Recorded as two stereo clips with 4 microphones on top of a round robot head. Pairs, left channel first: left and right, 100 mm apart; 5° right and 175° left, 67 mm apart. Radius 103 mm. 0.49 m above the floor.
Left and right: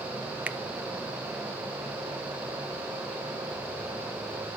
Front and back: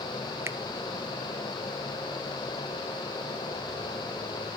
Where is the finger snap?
165° right, 0.6 m.